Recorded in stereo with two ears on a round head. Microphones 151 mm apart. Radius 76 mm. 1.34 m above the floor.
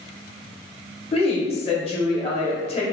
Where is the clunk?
I don't hear a clunk.